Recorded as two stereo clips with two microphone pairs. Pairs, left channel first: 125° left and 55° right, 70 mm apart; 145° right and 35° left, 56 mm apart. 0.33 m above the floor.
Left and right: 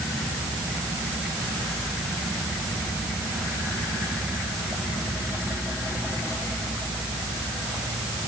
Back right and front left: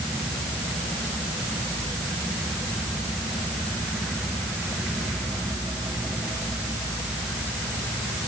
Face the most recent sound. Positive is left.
No sound to turn to.